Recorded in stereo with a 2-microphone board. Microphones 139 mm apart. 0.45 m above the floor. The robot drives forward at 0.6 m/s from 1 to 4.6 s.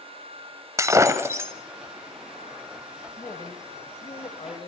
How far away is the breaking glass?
About 1.4 m.